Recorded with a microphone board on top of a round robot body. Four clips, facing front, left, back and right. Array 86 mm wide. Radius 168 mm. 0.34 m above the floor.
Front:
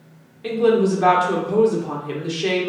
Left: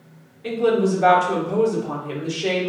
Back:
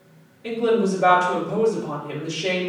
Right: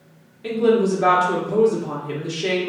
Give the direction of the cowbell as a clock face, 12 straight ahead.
No cowbell in this recording.